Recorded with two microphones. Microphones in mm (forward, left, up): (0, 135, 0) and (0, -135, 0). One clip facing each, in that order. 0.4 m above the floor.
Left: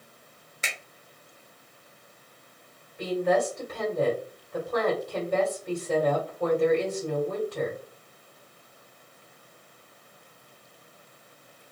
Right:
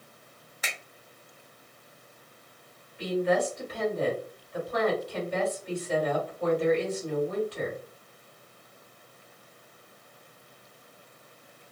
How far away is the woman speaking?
About 1.8 m.